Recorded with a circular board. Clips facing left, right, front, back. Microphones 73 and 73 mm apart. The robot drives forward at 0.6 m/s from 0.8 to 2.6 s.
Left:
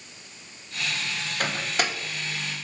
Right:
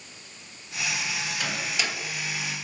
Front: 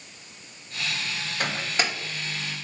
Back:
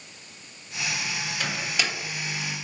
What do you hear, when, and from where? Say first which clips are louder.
1.4 s a microwave: left 5 dB, front 3 dB; 45° left, 1.5 m; by 1.9 s 55° left, 1.3 m